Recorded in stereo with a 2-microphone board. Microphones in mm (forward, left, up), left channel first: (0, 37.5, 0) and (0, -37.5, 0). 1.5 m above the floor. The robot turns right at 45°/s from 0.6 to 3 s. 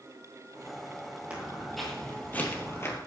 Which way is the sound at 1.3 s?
20° right (ahead or behind).